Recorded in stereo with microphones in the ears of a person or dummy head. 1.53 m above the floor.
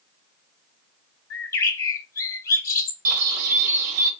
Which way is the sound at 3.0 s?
45° right (ahead or behind).